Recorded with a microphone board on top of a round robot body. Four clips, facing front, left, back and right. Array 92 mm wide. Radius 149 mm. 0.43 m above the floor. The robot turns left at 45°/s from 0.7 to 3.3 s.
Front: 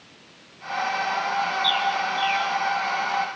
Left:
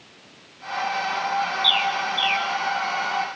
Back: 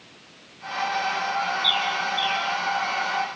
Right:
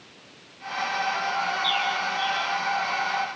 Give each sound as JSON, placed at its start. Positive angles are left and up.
{"t": 1.6, "sound": "a bird", "azimuth_deg": 90, "distance_m": 4.5}